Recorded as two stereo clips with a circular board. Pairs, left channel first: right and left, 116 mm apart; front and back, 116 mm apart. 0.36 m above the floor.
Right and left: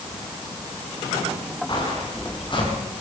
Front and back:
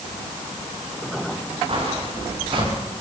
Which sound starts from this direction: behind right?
Footsteps, at 1.7 s.